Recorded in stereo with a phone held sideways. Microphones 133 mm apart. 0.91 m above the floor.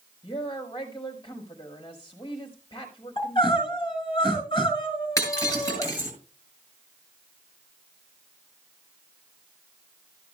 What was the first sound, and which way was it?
A woman speaking, 30° left (ahead or behind).